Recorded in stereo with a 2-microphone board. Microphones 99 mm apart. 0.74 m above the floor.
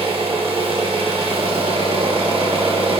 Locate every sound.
0.0 s an engine running: 65° right (ahead or behind), 1.2 m